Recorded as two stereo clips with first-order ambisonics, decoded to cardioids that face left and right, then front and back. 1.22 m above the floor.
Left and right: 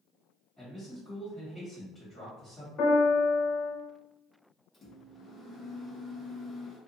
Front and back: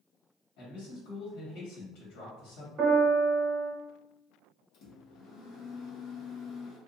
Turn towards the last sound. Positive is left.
turn(degrees=20)